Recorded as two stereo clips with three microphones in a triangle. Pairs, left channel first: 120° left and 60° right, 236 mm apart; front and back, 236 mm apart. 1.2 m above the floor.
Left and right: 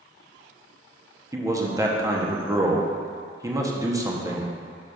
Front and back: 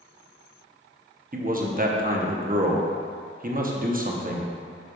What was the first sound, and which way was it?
A man speaking, 135° right.